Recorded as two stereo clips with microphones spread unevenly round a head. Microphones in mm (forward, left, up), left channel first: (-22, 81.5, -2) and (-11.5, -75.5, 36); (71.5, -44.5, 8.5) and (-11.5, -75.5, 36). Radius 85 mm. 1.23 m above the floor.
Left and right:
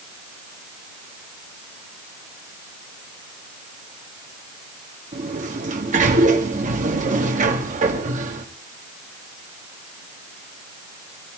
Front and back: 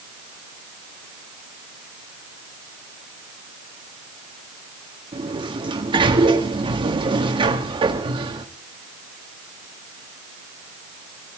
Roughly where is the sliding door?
Behind right.